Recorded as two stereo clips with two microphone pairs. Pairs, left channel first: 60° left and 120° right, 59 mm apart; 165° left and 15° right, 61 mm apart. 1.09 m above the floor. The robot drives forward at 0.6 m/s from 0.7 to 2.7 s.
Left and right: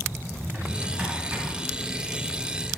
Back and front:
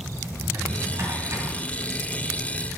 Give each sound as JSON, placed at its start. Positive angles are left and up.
{"t": 0.4, "sound": "a drawer", "azimuth_deg": -45, "distance_m": 2.0}